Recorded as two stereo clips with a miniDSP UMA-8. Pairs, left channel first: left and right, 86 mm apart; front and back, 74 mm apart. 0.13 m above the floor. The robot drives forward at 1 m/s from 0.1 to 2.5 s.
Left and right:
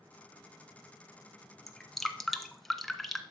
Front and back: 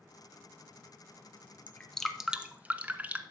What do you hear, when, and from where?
1.7 s dripping: 5° left, 1.2 m; by 3.2 s 175° left, 1.2 m